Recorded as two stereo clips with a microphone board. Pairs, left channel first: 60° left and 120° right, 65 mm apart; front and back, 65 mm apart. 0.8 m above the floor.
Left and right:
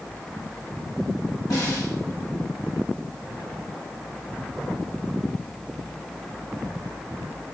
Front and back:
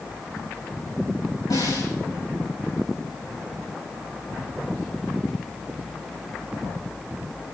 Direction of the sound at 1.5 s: 30° left.